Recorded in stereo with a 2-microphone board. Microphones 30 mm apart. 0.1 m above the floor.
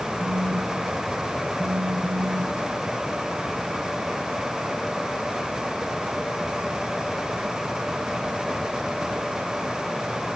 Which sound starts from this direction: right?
A phone buzzing, at 0.2 s.